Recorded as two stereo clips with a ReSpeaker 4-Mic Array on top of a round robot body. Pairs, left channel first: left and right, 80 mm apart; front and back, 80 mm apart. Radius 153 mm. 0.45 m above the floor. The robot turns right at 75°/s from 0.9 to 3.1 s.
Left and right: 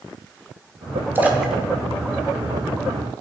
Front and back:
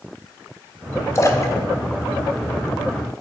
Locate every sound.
1.1 s a splash: 35° right, 1.0 m; by 2.9 s 95° left, 1.0 m